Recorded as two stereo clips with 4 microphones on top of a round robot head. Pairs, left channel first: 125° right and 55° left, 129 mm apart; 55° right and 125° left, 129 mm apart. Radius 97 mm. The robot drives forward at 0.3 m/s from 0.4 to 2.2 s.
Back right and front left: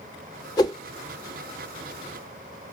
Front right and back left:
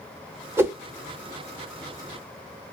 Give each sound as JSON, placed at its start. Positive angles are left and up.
{"t": 0.6, "sound": "a whoosh", "azimuth_deg": -170, "distance_m": 1.1}